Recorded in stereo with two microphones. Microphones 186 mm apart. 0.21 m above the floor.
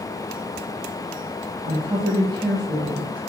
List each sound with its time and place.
1.6 s a woman speaking: 10° right (ahead or behind), 1.1 m